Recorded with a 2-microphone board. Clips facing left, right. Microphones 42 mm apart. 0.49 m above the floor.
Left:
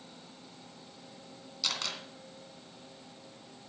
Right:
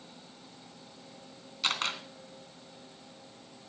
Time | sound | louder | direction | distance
1.6 | a camera shutter | right 5 dB | 30° right (ahead or behind) | 2 m